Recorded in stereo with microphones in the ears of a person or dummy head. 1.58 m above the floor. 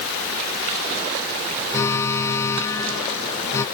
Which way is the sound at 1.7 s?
15° left (ahead or behind).